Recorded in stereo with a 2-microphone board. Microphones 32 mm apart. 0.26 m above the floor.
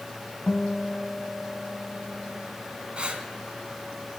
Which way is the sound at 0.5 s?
45° left (ahead or behind).